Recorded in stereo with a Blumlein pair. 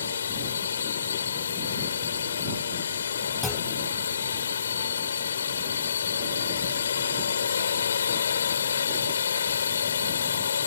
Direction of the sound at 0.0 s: 65° left.